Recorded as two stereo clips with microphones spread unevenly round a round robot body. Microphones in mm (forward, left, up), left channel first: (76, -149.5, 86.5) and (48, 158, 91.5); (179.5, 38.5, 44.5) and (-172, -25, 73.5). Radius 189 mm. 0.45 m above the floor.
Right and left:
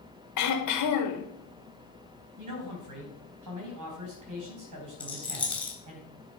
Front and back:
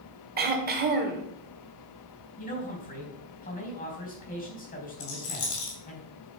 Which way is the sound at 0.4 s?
105° right.